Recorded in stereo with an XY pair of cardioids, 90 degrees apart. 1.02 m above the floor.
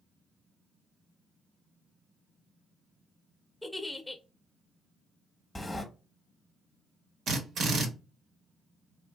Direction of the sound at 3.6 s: 5° left.